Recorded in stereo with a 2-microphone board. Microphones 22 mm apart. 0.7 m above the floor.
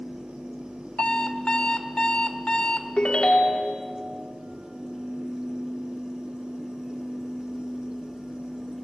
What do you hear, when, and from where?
1.0 s an alarm clock: 55° left (ahead or behind), 0.8 m
3.0 s a ringtone: 50° left (ahead or behind), 1.0 m